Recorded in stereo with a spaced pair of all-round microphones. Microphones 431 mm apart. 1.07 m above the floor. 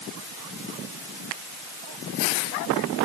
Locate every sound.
Only background noise.